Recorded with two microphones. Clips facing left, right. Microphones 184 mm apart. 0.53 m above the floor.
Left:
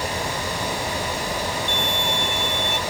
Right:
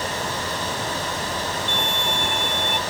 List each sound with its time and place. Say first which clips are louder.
1.7 s a violin: left 1 dB; 55° right (ahead or behind)